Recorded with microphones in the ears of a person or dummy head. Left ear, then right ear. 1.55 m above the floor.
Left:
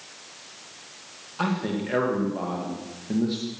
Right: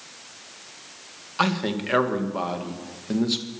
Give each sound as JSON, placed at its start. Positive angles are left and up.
{"t": 1.4, "sound": "a man speaking", "side_deg": -45, "distance_m": 2.0}